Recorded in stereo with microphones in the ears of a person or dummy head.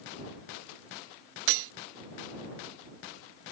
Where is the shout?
No shout in this recording.